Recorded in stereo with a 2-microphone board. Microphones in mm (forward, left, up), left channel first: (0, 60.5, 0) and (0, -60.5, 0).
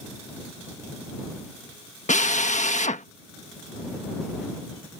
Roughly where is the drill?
Left.